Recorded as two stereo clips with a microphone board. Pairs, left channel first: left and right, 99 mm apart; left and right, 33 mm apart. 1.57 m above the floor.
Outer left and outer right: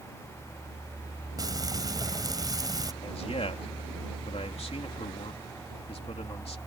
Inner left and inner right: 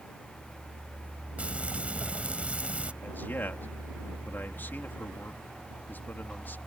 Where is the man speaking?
90° left.